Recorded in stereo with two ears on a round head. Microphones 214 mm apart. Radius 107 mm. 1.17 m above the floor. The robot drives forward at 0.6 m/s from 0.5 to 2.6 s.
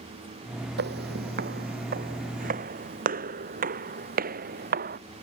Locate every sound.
0.8 s footsteps: 45° right (ahead or behind); by 5.0 s 40° right (ahead or behind)